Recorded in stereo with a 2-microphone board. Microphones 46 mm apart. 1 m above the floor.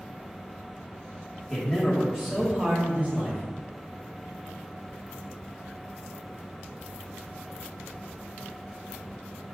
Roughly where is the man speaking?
Centre.